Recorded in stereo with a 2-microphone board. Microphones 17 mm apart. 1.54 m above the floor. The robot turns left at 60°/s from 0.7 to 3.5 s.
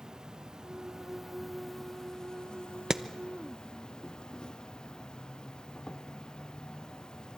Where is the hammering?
40° right (ahead or behind), 0.8 m; by 3.0 s 35° right (ahead or behind), 0.8 m.